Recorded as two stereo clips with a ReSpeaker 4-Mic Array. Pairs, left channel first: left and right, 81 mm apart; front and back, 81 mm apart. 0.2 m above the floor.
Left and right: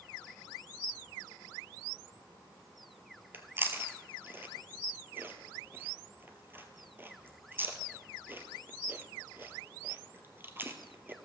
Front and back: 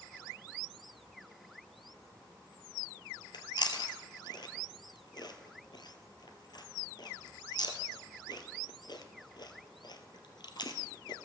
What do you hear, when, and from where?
3.3 s chewing: 25° right, 1.0 m